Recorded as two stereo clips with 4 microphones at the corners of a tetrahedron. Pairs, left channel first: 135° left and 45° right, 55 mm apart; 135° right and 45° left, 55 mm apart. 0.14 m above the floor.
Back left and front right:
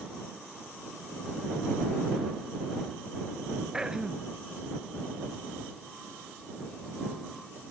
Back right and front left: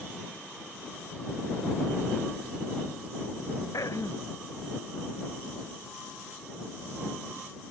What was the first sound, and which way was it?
Throat clearing, 125° right.